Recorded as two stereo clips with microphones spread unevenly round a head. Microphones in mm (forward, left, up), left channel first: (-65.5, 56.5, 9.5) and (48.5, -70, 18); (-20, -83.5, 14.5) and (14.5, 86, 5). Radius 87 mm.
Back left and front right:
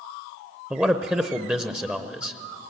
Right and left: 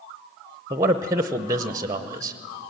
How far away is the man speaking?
About 0.7 m.